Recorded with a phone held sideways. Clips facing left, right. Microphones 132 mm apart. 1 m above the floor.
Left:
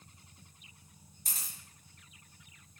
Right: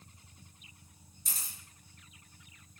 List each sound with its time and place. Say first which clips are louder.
1.2 s a camera shutter: even; 60° left (ahead or behind), 1.4 m